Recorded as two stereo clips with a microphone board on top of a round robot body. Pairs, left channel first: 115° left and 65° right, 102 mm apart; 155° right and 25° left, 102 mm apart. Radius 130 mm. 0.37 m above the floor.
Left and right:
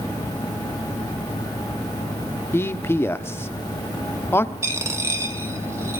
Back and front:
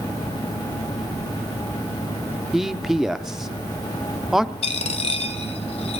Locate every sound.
2.5 s a man speaking: 105° left, 1.2 m
4.6 s a dropped coin: 135° right, 1.2 m